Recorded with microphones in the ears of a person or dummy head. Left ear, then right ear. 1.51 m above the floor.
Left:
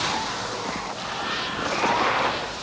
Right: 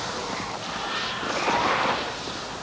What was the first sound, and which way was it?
Only background noise.